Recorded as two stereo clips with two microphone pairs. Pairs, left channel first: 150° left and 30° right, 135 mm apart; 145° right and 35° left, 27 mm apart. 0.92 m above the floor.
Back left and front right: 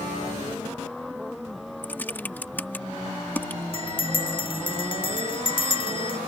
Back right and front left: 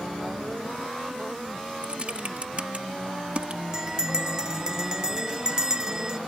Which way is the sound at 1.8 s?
75° left.